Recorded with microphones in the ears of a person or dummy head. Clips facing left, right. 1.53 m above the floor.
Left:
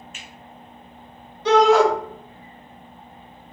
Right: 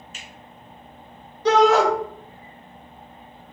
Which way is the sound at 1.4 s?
40° right (ahead or behind).